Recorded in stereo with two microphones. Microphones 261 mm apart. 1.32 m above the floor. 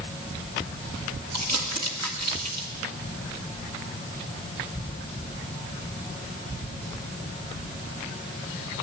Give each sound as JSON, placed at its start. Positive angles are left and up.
{"t": 1.3, "sound": "crumpling", "side_deg": -85, "distance_m": 1.6}